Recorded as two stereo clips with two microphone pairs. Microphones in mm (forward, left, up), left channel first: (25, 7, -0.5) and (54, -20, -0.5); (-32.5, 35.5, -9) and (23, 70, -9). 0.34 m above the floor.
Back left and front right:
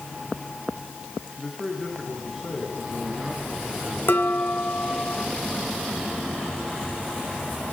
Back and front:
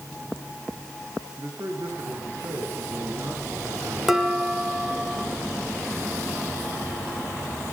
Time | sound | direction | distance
1.4 | a man speaking | 50° left | 4.5 m
4.1 | dishes clattering | 115° left | 2.5 m